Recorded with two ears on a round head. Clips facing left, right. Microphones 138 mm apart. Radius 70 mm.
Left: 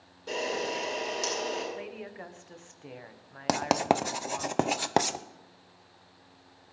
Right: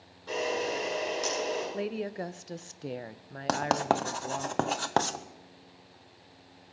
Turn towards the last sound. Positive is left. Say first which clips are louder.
# left 1 dB
turn(degrees=15)  # may be behind; listen again after turning